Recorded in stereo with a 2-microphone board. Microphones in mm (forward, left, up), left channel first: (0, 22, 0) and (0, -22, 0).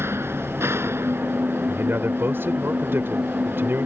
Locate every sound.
0.0 s an engine running: 80° right
1.7 s a man speaking: 65° right (ahead or behind)